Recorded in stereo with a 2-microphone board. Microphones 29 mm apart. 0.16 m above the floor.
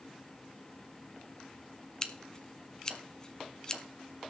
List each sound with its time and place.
2.0 s scissors: 20° left (ahead or behind), 1.0 m